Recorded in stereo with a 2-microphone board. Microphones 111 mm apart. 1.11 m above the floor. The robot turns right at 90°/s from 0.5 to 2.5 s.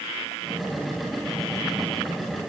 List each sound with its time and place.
Only background noise.